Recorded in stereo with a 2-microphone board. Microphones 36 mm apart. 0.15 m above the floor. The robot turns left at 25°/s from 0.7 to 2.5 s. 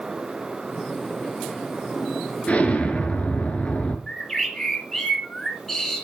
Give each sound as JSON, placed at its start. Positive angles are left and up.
{"t": 2.5, "sound": "an explosion", "side_deg": 35, "distance_m": 1.3}
{"t": 4.1, "sound": "a bird", "side_deg": 10, "distance_m": 2.0}